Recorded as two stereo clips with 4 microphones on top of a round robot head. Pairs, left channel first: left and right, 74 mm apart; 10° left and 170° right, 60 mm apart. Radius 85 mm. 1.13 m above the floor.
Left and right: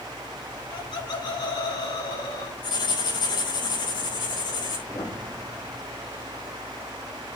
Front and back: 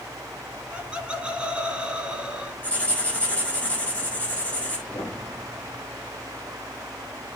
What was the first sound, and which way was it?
Laughter, 115° left.